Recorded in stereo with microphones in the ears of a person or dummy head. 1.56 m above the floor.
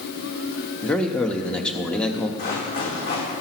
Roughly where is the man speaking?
Centre.